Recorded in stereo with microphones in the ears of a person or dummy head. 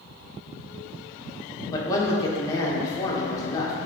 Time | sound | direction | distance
1.7 | a man speaking | 20° left (ahead or behind) | 1.5 m